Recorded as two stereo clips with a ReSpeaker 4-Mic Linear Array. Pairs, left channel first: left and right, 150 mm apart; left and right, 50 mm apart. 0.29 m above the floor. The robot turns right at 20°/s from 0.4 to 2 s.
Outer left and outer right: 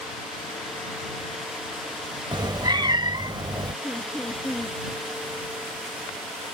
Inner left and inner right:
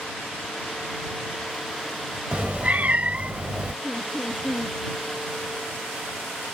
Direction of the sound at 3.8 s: 5° left (ahead or behind).